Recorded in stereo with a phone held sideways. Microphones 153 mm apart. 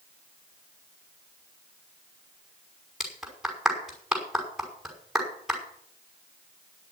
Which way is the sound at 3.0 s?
5° right (ahead or behind).